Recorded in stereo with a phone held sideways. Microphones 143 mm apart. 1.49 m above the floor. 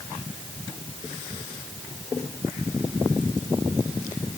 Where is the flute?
No flute in this recording.